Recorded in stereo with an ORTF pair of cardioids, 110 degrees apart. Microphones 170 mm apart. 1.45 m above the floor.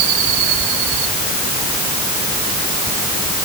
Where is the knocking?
I don't hear knocking.